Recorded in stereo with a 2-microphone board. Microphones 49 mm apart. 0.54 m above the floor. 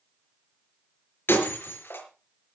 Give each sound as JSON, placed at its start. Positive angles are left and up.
{"t": 1.3, "sound": "breaking glass", "side_deg": 50, "distance_m": 5.0}